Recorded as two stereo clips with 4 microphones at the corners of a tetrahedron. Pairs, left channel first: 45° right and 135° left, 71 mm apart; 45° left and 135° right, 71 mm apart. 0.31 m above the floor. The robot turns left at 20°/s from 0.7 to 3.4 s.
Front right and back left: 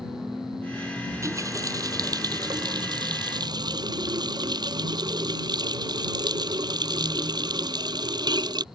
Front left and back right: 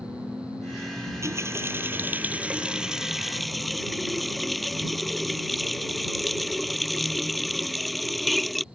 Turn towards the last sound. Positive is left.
turn(degrees=135)